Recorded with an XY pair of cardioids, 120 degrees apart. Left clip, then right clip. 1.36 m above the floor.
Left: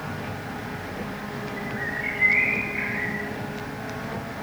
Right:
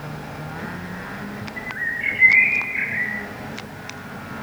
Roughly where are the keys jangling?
I don't hear keys jangling.